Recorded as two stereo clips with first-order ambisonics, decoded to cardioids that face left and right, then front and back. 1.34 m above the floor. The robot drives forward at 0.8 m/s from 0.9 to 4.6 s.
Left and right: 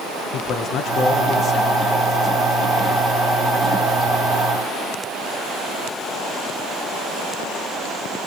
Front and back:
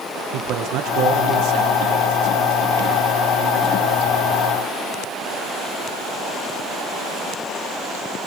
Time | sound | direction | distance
0.3 | a man speaking | 140° left | 1.3 m